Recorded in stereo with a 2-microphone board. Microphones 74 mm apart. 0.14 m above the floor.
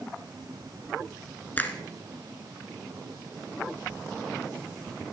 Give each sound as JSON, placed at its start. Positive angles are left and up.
{"t": 1.6, "sound": "a finger snap", "side_deg": 25, "distance_m": 1.2}